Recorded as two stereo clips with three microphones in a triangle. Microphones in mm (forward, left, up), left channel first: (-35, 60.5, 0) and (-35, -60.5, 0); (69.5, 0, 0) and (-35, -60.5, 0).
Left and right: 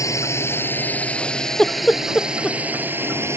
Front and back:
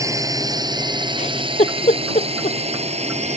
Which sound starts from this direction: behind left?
A drone, at 0.0 s.